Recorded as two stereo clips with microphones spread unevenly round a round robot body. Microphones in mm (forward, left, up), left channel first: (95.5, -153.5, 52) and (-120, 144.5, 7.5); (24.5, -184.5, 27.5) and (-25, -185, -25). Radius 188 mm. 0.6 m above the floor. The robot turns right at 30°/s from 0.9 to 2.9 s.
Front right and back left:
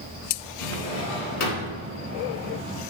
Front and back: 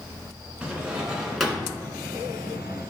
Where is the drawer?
90° right, 1.8 m; by 1.8 s 65° right, 1.8 m.